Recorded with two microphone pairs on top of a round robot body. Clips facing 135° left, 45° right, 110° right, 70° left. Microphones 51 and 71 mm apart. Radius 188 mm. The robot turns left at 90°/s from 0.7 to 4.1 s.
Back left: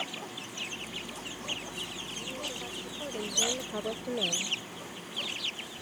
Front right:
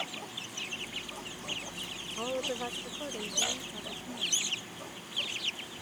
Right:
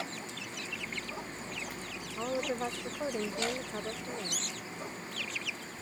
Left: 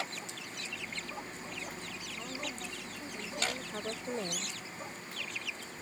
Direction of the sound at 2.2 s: 55° right.